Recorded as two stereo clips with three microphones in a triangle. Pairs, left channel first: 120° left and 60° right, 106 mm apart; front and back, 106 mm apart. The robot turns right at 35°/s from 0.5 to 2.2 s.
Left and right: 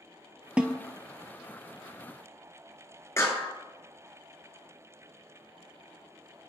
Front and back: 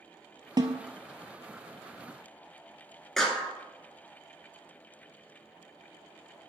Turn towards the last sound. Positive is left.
turn(degrees=85)